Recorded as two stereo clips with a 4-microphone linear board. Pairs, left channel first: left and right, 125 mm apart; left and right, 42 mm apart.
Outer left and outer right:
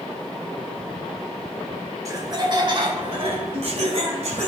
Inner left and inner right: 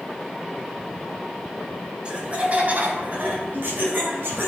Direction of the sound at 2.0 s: 25° right (ahead or behind).